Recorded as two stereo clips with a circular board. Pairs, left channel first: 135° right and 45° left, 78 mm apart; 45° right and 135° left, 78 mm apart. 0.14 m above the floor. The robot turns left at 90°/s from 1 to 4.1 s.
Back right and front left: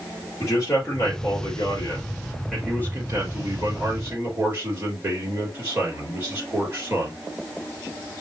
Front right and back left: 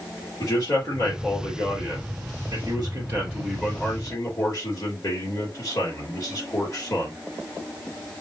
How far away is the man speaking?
About 3.5 m.